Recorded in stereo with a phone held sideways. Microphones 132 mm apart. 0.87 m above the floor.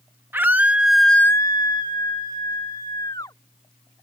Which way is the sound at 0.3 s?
15° right (ahead or behind).